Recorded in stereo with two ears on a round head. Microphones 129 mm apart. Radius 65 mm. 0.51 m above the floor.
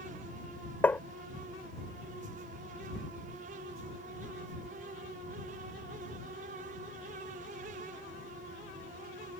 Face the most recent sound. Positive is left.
turn(degrees=10)  # may be behind; listen again after turning